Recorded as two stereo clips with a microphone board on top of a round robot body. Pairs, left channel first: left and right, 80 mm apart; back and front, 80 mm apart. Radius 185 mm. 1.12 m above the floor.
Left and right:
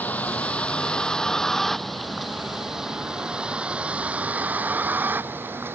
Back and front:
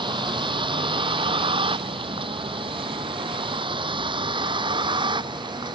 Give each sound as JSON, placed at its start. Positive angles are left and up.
{"t": 0.0, "sound": "a vehicle", "azimuth_deg": 20}